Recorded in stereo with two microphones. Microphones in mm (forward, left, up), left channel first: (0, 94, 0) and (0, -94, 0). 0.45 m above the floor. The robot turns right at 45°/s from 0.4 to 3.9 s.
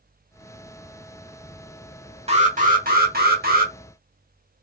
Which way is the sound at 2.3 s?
140° right.